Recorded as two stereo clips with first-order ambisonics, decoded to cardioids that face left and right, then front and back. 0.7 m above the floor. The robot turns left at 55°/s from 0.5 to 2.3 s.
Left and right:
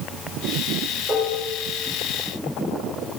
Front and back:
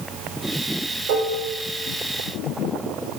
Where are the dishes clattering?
170° right, 1.4 m; by 1.4 s 175° left, 1.4 m.